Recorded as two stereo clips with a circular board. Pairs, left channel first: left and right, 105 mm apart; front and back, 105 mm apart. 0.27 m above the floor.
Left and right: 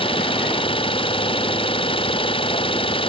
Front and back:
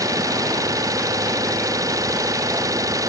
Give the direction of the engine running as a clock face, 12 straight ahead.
8 o'clock.